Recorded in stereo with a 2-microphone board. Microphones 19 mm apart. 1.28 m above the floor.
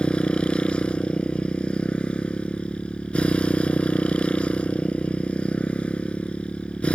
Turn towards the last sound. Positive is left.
turn(degrees=85)